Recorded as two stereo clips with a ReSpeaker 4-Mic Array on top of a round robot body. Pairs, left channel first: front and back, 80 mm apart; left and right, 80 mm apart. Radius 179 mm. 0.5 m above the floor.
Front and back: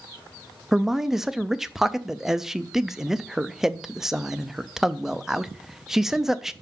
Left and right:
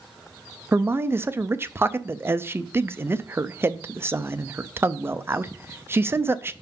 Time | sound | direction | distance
0.7 | a man speaking | 100° right | 0.7 m